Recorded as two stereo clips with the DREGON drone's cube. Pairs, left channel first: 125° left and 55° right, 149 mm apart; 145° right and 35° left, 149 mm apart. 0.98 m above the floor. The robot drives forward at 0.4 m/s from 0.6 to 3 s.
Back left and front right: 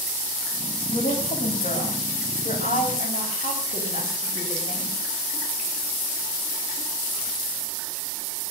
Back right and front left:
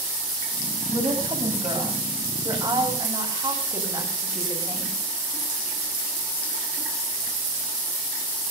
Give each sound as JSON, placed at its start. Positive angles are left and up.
{"t": 0.9, "sound": "a woman speaking", "azimuth_deg": 90, "distance_m": 6.0}